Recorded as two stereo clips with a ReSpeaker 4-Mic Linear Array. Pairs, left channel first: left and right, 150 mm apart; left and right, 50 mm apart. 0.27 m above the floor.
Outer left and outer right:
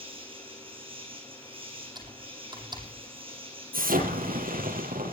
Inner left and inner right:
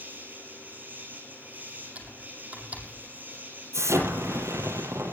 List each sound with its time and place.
0.0 s an insect: 35° right (ahead or behind), 4 m
1.9 s typing on a keyboard: 30° right (ahead or behind), 7.5 m
3.7 s an explosion: 75° right (ahead or behind), 7.5 m